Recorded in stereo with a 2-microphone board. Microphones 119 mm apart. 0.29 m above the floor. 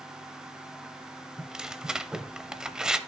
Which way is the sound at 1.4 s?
5° right (ahead or behind).